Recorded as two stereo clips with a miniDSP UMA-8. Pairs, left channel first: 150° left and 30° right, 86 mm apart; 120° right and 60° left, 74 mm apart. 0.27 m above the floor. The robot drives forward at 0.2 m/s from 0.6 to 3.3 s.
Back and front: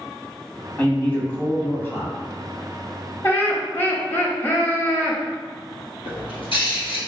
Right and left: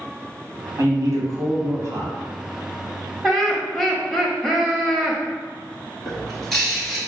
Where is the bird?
155° left, 1.8 m.